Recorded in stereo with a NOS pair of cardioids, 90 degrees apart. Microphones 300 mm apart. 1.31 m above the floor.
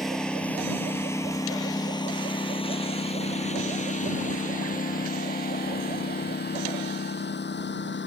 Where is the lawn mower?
Straight ahead; by 8.1 s 40° left.